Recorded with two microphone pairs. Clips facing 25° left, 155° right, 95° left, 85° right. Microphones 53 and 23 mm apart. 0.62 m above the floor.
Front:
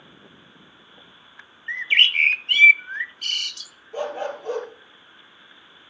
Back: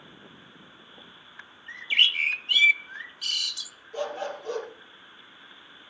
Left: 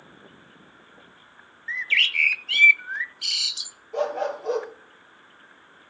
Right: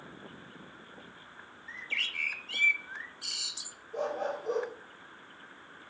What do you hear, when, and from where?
1.7 s a bird: 65° left, 0.6 m
3.9 s a dog barking: 85° left, 5.5 m